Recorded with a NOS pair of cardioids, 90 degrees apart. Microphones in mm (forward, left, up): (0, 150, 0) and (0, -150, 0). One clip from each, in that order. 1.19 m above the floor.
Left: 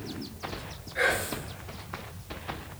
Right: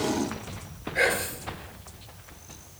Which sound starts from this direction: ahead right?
Whispering, at 0.9 s.